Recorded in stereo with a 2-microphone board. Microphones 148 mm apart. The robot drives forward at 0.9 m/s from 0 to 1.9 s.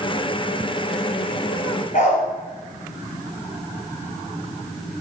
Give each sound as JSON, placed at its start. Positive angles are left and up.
{"t": 1.9, "sound": "a dog barking", "side_deg": 50, "distance_m": 4.0}